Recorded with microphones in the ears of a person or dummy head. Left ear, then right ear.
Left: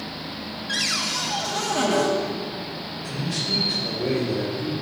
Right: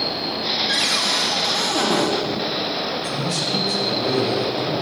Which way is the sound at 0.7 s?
15° right (ahead or behind).